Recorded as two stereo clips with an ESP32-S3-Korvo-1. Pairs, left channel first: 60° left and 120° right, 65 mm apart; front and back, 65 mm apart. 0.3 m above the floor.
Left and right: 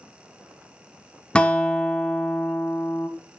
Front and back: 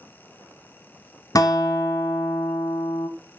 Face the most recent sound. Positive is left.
turn(degrees=-10)